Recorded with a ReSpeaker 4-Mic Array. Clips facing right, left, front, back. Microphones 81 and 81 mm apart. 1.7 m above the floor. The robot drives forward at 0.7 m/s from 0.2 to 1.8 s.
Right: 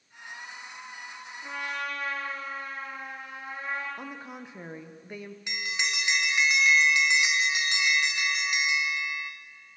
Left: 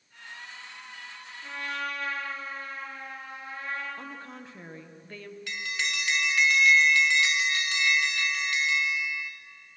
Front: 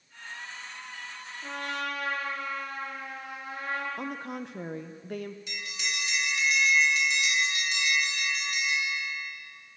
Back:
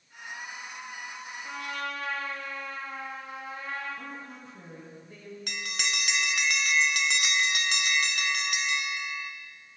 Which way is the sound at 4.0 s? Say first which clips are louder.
Right 1 dB, front 6 dB; 15° right.